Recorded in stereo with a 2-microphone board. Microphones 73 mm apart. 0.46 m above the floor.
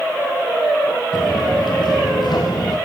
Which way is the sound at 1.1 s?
80° left.